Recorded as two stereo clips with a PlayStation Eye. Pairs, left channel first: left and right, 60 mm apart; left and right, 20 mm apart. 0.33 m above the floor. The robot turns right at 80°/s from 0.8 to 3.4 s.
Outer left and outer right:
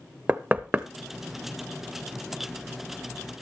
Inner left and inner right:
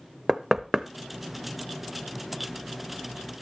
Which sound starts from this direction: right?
Knocking, at 0.3 s.